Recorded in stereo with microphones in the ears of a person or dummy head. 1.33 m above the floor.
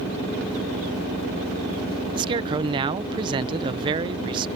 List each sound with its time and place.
2.1 s a man speaking: 25° right (ahead or behind)